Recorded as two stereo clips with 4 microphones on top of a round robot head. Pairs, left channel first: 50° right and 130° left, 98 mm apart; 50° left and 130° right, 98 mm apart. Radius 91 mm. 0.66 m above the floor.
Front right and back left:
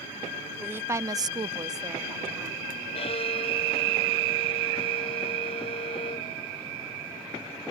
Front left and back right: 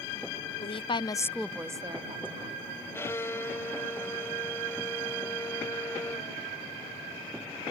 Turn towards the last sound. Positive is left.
turn(degrees=-20)